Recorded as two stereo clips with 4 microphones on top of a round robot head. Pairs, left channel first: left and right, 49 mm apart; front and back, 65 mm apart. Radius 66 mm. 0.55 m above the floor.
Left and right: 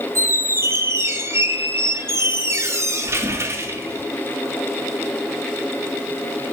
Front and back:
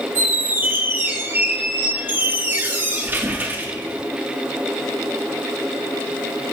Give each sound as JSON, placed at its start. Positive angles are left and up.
{"t": 0.1, "sound": "a squeak", "azimuth_deg": -120, "distance_m": 0.8}